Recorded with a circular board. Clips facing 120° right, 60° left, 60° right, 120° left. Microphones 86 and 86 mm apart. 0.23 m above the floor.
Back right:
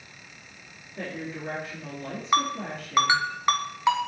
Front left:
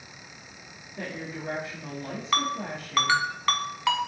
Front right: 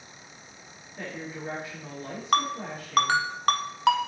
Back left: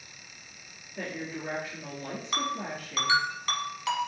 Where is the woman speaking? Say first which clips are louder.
Back right 1 dB, back left 1 dB; 170° right, 3 m.